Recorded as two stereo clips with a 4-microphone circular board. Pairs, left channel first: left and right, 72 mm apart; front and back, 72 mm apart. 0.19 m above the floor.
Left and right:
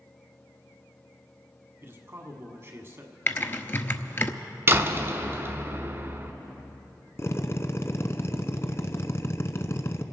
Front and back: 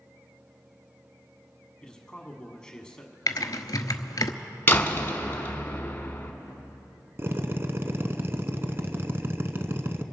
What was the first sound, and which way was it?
A man speaking, 70° right.